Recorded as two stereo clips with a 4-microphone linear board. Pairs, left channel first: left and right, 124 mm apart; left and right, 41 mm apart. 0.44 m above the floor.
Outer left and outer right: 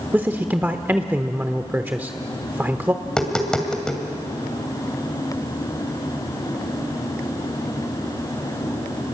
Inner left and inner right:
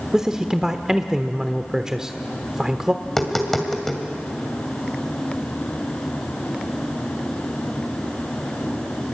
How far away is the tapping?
About 2.5 m.